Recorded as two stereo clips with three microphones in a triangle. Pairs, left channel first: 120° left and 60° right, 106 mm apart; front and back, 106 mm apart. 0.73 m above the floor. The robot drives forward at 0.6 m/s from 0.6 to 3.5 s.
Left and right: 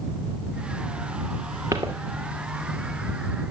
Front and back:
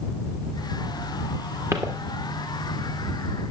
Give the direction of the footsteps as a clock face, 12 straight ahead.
4 o'clock.